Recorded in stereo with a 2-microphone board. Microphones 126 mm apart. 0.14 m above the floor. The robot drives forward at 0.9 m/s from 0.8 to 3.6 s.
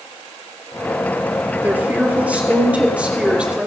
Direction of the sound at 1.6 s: 15° right (ahead or behind).